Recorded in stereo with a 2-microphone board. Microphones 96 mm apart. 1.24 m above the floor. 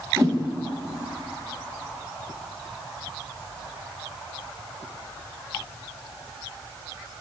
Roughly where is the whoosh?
Right.